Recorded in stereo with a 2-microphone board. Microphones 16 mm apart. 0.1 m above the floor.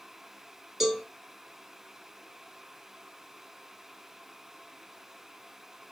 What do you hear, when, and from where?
0.8 s a cowbell: 20° right (ahead or behind), 1.4 m